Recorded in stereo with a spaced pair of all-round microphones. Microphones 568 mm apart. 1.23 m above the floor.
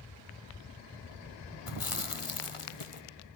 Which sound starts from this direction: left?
Chewing, at 1.7 s.